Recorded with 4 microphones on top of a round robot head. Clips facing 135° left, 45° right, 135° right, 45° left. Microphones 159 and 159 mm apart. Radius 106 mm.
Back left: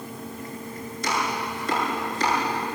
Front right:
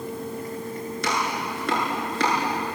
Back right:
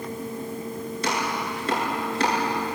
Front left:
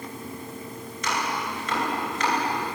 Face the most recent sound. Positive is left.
turn(degrees=-75)